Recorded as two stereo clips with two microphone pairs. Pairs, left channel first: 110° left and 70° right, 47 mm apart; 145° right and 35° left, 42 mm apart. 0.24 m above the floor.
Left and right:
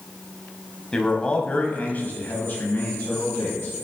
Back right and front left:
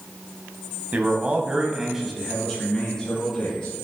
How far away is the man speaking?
About 1.2 m.